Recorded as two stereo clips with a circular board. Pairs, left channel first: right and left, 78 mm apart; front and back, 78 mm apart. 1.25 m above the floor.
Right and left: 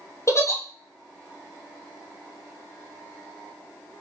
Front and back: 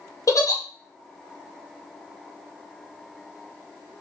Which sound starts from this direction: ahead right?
A giggle, at 0.3 s.